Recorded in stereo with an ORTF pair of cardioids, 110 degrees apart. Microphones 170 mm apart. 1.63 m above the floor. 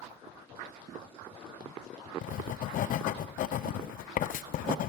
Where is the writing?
55° left, 0.6 m.